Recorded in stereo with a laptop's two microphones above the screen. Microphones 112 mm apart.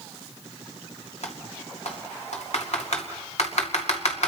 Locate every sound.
1.2 s typing on a keyboard: 70° left (ahead or behind), 2.5 m